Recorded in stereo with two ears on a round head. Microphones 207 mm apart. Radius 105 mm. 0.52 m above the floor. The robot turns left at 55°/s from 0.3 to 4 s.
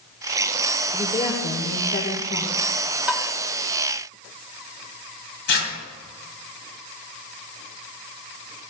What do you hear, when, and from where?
0.9 s a woman speaking: 170° left, 1.7 m; by 2.5 s 80° left, 1.7 m
3.1 s tapping: 5° right (ahead or behind), 0.9 m; by 3.3 s 5° left (ahead or behind), 0.9 m
5.5 s tearing paper: 50° left (ahead or behind), 2.5 m